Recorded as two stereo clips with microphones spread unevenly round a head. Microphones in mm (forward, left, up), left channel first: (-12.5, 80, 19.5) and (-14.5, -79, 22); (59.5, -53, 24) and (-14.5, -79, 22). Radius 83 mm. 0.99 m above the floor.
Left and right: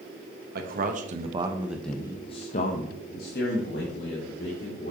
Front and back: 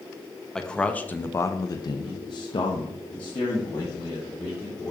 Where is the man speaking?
65° right, 1.3 m; by 4.9 s 75° left, 3 m.